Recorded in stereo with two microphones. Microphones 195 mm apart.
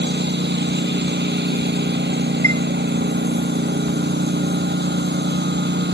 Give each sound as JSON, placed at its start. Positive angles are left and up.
{"t": 0.0, "sound": "a lawn mower", "side_deg": -60}
{"t": 2.4, "sound": "a chime", "side_deg": 15}